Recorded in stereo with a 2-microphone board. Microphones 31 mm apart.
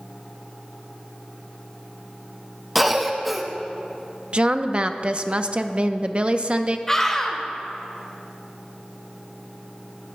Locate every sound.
2.8 s a cough: 5° right (ahead or behind), 0.9 m
4.3 s a woman speaking: 40° right (ahead or behind), 0.6 m
6.9 s a scream: 20° left (ahead or behind), 1.6 m